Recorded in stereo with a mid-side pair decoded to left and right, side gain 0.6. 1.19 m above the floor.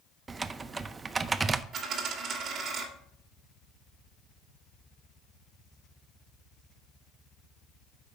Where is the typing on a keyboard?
30° right, 0.5 m.